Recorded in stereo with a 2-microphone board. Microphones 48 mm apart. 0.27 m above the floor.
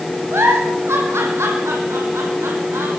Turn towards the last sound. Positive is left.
turn(degrees=-75)  # may be behind; listen again after turning